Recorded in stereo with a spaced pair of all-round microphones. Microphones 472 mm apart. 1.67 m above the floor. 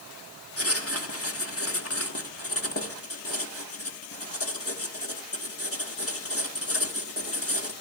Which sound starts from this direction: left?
Writing, at 0.6 s.